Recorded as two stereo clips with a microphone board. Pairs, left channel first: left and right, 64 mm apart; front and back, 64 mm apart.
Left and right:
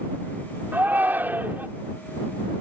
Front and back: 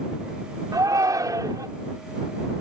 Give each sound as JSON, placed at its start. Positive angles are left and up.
{"t": 0.7, "sound": "a shout", "azimuth_deg": -155}